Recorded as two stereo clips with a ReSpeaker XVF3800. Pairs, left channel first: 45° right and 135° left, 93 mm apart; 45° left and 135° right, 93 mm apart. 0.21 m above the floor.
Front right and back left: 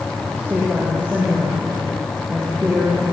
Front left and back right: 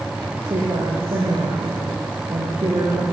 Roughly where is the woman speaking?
Behind right.